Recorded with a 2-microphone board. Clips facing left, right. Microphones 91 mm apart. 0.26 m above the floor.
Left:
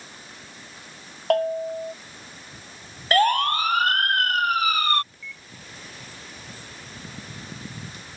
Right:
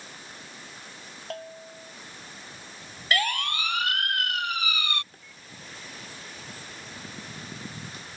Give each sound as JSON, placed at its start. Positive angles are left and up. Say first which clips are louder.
{"t": 1.3, "sound": "a bell", "louder": "left 18 dB", "side_deg": 70}
{"t": 3.1, "sound": "a siren", "louder": "left 9 dB", "side_deg": 40}
{"t": 5.1, "sound": "a microwave", "louder": "left 7 dB", "side_deg": -45}